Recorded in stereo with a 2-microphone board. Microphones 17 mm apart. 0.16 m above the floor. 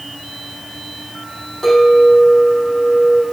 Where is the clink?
30° left (ahead or behind), 4.5 m.